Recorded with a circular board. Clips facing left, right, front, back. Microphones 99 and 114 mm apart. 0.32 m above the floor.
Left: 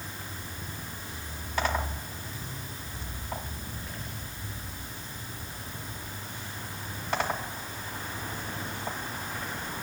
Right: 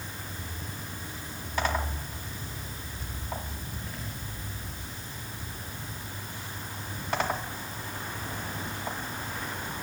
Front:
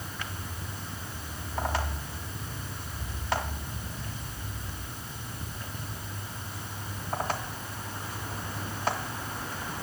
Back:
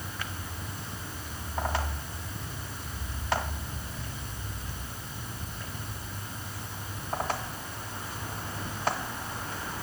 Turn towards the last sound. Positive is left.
No sound to turn to.